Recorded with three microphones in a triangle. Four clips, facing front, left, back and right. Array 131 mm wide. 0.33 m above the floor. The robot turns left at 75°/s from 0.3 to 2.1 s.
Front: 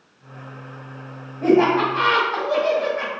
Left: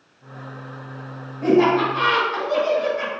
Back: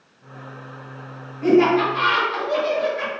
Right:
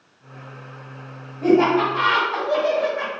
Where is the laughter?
5° left, 1.5 m; by 3.1 s 45° right, 1.5 m.